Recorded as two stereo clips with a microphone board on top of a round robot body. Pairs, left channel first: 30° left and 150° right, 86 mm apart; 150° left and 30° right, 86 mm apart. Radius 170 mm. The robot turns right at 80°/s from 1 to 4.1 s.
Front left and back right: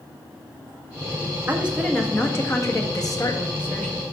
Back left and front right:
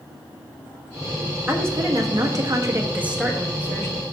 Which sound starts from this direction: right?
A woman speaking, at 1.5 s.